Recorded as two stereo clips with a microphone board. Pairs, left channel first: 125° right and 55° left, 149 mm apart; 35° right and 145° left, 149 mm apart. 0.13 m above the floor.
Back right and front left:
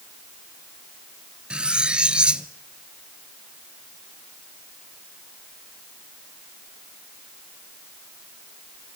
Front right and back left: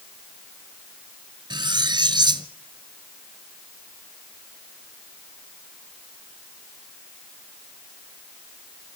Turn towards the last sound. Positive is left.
turn(degrees=135)